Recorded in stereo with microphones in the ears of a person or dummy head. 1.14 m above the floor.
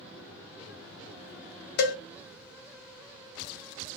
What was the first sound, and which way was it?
A cowbell, 60° left (ahead or behind).